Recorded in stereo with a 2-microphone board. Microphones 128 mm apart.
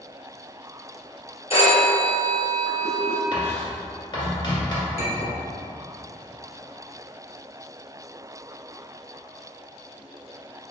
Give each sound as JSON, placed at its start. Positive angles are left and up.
{"t": 1.5, "sound": "a phone ringing", "side_deg": 55, "distance_m": 1.7}
{"t": 3.3, "sound": "writing", "side_deg": 40, "distance_m": 1.7}
{"t": 5.0, "sound": "a clink", "side_deg": 55, "distance_m": 1.9}